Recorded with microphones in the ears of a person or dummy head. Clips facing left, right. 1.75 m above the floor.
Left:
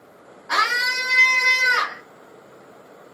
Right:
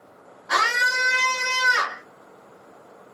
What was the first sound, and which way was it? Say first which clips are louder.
A scream: right 1 dB; 35° right (ahead or behind).